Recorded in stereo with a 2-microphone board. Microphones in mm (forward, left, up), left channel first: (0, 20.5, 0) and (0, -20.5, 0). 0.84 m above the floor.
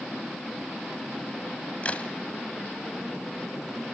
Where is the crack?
35° left (ahead or behind), 1.7 m.